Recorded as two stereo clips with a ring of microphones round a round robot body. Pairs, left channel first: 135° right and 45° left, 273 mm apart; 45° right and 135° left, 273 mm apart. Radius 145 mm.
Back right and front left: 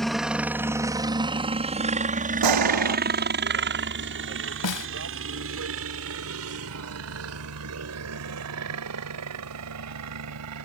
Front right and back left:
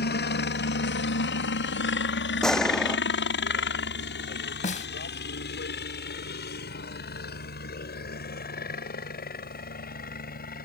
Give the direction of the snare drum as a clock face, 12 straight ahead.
4 o'clock.